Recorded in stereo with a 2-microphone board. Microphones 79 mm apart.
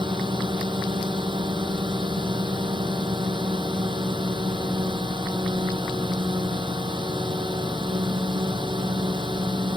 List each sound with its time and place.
0.0 s a drone: 75° right (ahead or behind)